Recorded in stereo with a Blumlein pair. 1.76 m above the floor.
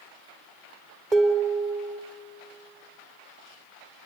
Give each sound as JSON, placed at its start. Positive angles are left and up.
{"t": 1.1, "sound": "dishes clattering", "azimuth_deg": -20, "distance_m": 3.0}